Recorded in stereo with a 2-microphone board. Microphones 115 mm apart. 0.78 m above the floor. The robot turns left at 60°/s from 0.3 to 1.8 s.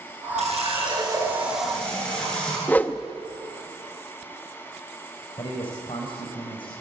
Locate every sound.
0.4 s a running tap: 100° right, 8 m; by 2.6 s 175° left, 8 m
2.7 s a whoosh: 15° left (ahead or behind), 1.0 m
5.4 s a man speaking: 50° left (ahead or behind), 3.5 m